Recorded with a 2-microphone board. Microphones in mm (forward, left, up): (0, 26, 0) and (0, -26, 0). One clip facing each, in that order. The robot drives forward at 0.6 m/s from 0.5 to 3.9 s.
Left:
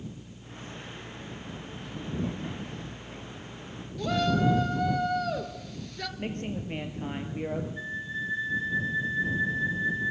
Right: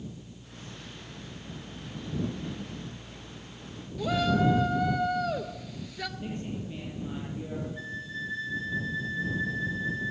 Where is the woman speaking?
65° left (ahead or behind), 4 m.